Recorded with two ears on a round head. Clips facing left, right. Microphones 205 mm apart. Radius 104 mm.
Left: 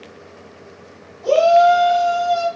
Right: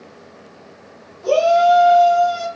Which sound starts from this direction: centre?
A shout, at 1.2 s.